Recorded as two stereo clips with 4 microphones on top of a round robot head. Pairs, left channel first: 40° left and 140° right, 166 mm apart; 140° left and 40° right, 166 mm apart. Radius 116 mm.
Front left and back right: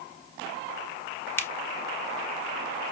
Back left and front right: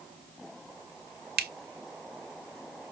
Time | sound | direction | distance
1.4 | a finger snap | 35° right | 1.0 m